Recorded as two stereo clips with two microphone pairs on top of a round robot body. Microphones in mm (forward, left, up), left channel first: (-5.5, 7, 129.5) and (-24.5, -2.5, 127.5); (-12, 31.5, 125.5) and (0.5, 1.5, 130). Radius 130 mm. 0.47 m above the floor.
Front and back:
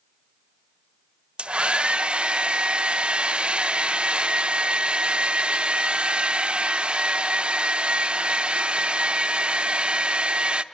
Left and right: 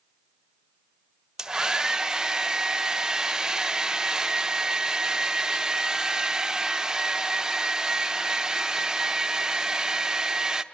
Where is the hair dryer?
140° right, 1.0 m.